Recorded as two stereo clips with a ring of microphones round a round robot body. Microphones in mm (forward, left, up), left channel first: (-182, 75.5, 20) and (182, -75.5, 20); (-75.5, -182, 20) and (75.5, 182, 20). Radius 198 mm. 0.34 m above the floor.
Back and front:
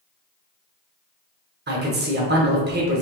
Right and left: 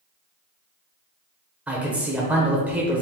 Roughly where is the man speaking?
Ahead.